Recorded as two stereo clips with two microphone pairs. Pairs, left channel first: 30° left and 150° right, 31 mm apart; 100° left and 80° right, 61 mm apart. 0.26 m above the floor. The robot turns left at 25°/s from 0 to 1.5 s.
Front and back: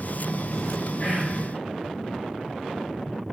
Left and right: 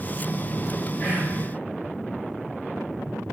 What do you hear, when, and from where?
1.0 s whispering: 55° left, 2.0 m; by 1.4 s 50° left, 2.0 m